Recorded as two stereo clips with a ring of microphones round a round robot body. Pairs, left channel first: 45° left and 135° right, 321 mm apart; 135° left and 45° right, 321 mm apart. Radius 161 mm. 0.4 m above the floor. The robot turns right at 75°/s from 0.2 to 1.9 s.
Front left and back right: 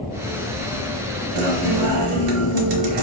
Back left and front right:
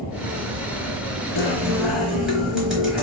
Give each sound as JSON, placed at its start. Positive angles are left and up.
{"t": 1.4, "sound": "a guitar", "azimuth_deg": -175, "distance_m": 1.1}